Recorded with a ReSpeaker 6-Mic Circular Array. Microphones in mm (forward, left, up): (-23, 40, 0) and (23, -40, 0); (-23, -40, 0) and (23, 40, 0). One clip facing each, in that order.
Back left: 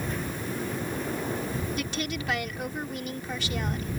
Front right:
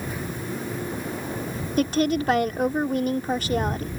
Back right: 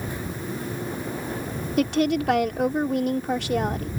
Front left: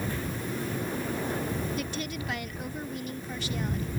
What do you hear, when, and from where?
1.8 s a woman speaking: 105° right